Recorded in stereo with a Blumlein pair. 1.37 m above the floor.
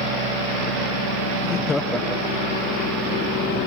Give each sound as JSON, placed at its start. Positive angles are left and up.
{"t": 1.4, "sound": "laughter", "azimuth_deg": 35}